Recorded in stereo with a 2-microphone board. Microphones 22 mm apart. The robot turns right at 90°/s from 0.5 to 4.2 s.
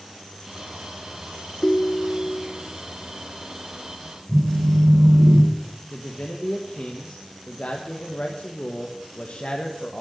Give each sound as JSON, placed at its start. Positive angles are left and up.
{"t": 1.6, "sound": "a ringtone", "azimuth_deg": 120, "distance_m": 0.8}
{"t": 4.3, "sound": "a phone buzzing", "side_deg": -40, "distance_m": 5.0}
{"t": 5.9, "sound": "a man speaking", "side_deg": 70, "distance_m": 1.3}